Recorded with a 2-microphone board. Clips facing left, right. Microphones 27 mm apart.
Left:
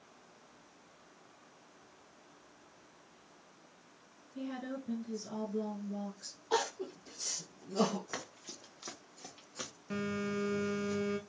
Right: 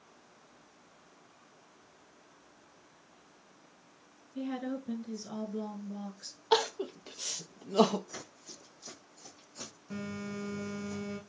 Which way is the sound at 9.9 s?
35° left (ahead or behind).